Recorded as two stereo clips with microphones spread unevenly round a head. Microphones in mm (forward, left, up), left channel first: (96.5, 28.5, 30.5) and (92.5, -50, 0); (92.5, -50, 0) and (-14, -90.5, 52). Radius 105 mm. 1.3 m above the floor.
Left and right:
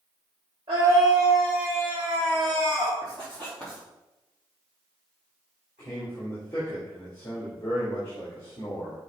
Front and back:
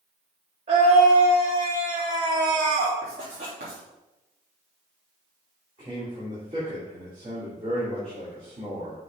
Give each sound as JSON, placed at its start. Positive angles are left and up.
{"t": 0.7, "sound": "a scream", "azimuth_deg": -155, "distance_m": 2.5}
{"t": 3.0, "sound": "writing", "azimuth_deg": 160, "distance_m": 3.0}
{"t": 5.8, "sound": "a man speaking", "azimuth_deg": 140, "distance_m": 3.0}